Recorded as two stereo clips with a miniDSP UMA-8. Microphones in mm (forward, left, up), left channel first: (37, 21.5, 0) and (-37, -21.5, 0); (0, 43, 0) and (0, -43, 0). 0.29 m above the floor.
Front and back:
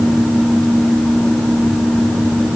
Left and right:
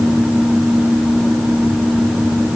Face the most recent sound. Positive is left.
No sound to turn to.